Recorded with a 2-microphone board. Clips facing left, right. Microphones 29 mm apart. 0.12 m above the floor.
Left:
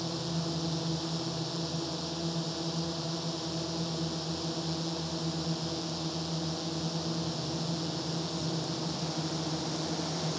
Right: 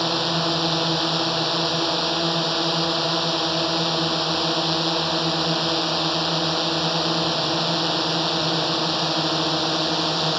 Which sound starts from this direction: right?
A drone, at 0.0 s.